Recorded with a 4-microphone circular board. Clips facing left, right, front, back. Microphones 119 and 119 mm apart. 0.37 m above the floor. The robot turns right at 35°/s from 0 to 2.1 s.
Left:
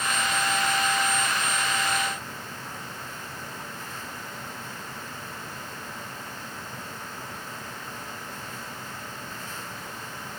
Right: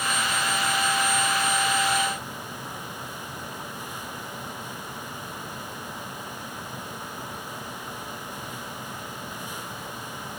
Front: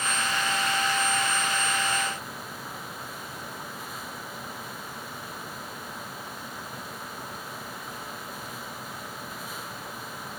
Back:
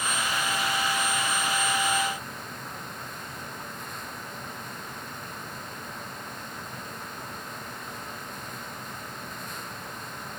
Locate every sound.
Only background noise.